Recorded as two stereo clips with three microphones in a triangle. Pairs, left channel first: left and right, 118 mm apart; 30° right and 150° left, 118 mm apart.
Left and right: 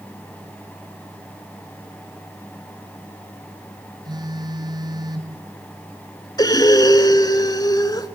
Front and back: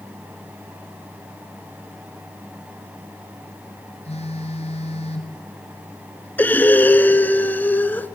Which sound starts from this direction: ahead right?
A phone buzzing, at 4.0 s.